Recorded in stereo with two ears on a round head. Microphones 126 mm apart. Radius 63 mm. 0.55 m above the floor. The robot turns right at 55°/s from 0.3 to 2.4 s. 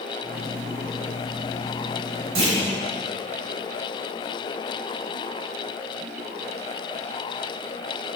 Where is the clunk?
45° right (ahead or behind), 3.5 m.